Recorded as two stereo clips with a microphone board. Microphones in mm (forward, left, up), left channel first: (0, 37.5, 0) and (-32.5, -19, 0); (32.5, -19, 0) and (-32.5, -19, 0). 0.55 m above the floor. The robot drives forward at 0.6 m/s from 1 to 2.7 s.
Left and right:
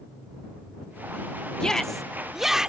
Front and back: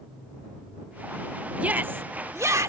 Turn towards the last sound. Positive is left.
turn(degrees=165)